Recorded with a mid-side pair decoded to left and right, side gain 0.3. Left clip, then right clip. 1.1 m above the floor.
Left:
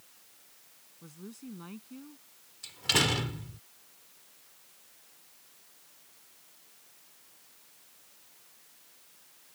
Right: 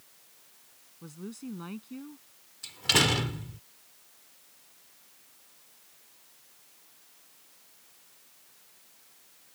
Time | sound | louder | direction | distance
1.0 | a woman speaking | right 5 dB | 50° right | ?
2.6 | a door slam | right 3 dB | 25° right | ?